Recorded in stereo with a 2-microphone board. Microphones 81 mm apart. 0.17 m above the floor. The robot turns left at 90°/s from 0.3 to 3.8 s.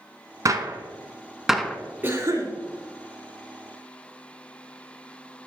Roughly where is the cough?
Ahead right.